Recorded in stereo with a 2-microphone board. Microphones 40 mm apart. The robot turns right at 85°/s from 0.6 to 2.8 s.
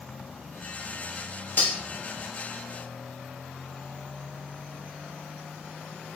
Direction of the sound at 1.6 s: 55° left (ahead or behind).